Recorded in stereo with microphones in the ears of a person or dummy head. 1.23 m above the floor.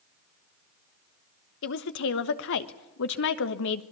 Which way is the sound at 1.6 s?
65° left (ahead or behind).